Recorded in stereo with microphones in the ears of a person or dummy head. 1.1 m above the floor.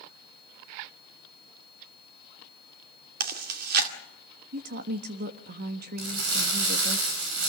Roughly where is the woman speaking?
Right.